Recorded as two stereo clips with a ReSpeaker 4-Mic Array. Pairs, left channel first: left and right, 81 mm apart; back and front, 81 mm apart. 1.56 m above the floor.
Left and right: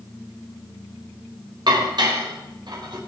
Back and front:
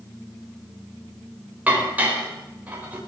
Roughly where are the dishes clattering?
Right.